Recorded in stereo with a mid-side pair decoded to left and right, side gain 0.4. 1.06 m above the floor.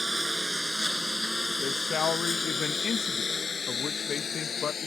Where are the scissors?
I don't hear scissors.